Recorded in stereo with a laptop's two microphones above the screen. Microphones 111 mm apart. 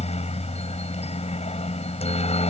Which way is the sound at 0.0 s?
70° left (ahead or behind).